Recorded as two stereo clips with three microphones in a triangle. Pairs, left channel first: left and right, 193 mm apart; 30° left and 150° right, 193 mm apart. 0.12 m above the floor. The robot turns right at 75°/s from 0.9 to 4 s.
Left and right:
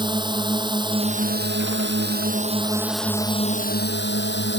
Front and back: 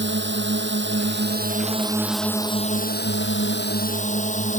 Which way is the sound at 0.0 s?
155° right.